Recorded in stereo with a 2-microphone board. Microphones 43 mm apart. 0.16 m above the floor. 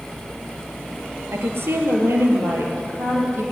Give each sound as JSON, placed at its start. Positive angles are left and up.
{"t": 1.3, "sound": "a woman speaking", "side_deg": -65, "distance_m": 4.0}